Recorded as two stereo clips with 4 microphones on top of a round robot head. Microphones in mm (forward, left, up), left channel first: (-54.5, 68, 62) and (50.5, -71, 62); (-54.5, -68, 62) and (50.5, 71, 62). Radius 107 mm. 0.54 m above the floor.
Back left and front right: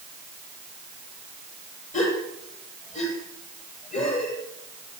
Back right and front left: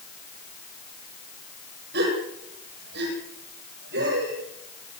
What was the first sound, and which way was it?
A gasp, 75° left.